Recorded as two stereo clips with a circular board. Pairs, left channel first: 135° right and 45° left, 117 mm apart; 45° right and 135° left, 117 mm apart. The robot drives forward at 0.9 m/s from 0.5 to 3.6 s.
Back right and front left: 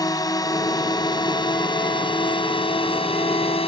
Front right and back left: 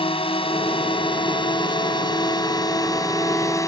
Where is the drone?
80° right; by 3.7 s 105° right.